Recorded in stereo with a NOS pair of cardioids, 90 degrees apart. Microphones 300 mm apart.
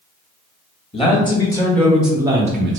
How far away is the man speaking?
About 1.3 m.